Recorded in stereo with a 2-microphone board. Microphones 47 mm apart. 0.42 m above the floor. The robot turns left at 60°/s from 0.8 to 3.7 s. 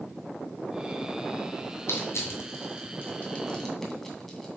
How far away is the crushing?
About 2.5 m.